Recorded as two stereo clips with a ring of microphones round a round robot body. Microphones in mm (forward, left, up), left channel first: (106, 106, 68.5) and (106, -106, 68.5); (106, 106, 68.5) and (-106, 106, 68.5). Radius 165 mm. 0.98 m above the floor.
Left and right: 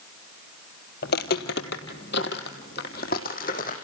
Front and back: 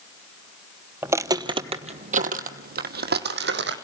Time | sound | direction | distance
1.0 | footsteps | 105° left | 1.2 m